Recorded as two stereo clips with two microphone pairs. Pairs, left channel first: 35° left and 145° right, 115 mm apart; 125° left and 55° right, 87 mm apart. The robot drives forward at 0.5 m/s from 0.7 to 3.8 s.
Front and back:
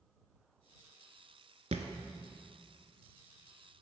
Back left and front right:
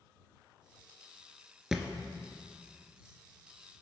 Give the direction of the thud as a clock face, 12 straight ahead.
5 o'clock.